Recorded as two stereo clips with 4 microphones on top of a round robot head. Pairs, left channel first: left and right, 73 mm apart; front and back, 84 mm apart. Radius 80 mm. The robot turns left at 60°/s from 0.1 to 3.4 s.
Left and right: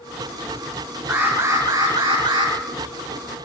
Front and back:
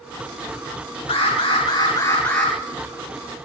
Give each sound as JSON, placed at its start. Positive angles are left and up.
{"t": 1.1, "sound": "an alarm", "azimuth_deg": -5, "distance_m": 9.5}